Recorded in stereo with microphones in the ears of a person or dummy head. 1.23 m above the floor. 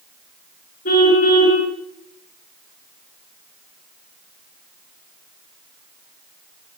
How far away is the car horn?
About 7 m.